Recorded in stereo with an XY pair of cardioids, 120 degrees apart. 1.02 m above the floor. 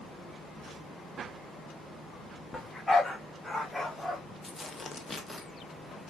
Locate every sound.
2.5 s a dog barking: 15° left, 1.1 m; by 4.2 s 10° left, 2 m
4.4 s tearing paper: 20° left, 1.1 m